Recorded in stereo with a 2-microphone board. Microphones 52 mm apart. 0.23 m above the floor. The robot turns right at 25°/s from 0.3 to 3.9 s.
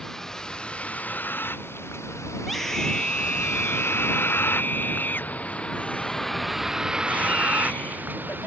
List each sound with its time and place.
0.0 s a vehicle: 10° left (ahead or behind); by 8.5 s 40° right (ahead or behind)
2.4 s a scream: straight ahead; by 8.5 s 40° left